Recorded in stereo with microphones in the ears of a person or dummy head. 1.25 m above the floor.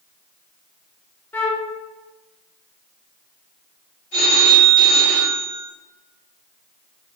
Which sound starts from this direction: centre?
A flute, at 1.3 s.